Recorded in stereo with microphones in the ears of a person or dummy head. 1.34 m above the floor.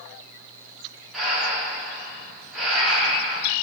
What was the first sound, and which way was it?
Breathing, centre (ahead or behind).